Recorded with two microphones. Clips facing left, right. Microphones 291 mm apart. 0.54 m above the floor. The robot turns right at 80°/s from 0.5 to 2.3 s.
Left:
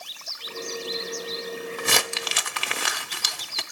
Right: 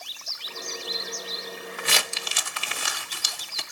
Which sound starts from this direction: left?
Crumpling, at 1.8 s.